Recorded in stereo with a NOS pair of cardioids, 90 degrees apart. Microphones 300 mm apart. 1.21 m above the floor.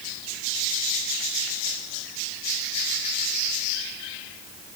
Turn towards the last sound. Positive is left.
No sound to turn to.